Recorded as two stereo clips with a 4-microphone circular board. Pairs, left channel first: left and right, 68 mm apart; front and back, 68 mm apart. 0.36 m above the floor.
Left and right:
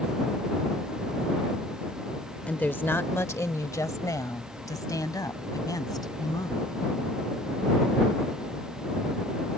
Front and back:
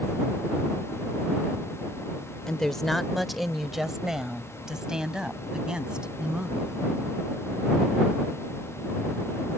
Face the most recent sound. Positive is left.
turn(degrees=105)